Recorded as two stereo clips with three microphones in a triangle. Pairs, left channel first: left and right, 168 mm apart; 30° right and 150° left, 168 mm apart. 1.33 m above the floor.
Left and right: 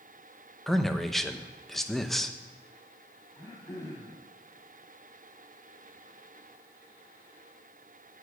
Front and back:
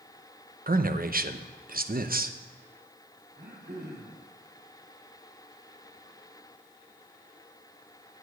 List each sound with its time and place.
0.7 s a man speaking: straight behind, 0.7 m
3.4 s throat clearing: 160° left, 3 m